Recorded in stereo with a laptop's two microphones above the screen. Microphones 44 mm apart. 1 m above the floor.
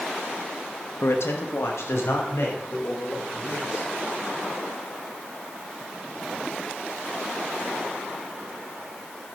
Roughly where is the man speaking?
Left.